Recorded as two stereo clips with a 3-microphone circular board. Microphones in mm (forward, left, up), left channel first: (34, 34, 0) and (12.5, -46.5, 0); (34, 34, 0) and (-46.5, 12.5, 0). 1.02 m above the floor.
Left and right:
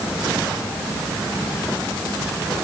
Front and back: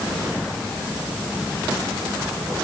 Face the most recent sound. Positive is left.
No sound to turn to.